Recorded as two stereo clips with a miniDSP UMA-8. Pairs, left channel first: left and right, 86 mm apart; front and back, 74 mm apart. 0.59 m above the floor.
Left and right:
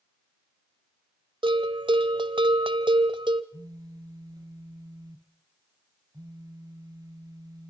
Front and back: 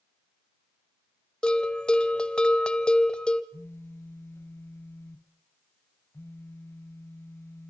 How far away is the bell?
About 1.1 m.